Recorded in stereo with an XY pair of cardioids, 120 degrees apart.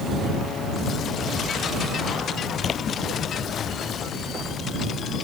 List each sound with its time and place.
2.6 s a splash: 40° left